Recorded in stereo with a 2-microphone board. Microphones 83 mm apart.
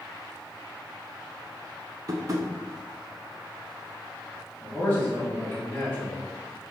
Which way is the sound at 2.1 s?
50° right (ahead or behind).